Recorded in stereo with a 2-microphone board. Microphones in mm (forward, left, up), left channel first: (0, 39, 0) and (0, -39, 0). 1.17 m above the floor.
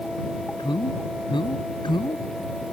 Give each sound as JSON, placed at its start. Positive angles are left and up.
{"t": 0.6, "sound": "a man speaking", "side_deg": 90}